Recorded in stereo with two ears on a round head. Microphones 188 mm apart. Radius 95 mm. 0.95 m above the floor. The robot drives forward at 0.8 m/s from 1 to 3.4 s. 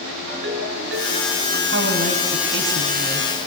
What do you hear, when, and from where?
0.3 s a ringtone: 55° right (ahead or behind), 5 m; by 1.6 s 60° right (ahead or behind), 5 m
1.7 s a woman speaking: 50° right (ahead or behind), 6 m; by 3.3 s 65° right (ahead or behind), 5.5 m